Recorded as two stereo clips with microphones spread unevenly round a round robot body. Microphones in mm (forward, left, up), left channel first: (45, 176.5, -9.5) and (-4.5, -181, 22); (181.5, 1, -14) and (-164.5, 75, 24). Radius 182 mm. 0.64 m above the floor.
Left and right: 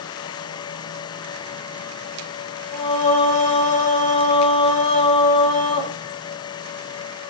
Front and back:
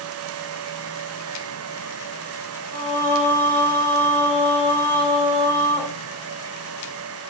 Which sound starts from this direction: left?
Singing, at 2.7 s.